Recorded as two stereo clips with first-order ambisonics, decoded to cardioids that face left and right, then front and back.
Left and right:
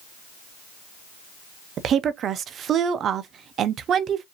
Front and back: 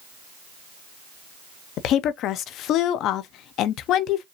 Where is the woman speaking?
35° right, 0.5 m.